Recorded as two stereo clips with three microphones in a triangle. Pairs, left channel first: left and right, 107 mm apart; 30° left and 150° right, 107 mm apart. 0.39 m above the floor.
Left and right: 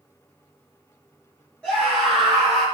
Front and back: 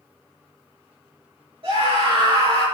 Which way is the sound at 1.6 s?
170° left.